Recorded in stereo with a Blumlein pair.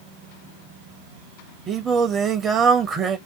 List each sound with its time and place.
1.7 s singing: 20° right, 0.8 m